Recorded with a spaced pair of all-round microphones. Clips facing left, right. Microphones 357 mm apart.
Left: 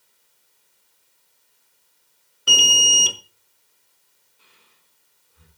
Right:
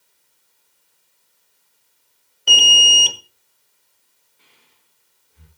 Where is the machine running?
No machine running in this recording.